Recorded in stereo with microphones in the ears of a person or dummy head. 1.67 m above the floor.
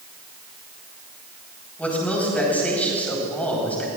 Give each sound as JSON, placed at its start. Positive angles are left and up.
{"t": 1.8, "sound": "a man speaking", "side_deg": 10, "distance_m": 4.5}